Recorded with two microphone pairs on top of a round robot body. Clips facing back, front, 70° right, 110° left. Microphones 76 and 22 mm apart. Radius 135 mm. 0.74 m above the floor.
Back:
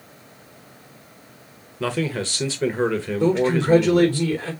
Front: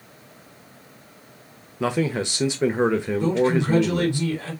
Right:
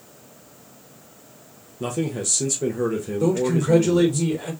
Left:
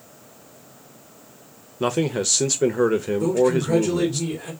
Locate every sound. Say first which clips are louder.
1.8 s a man speaking: front 1 dB, left 4 dB; 70° left, 0.7 m
3.2 s a man speaking: back 3 dB, even; 130° right, 3 m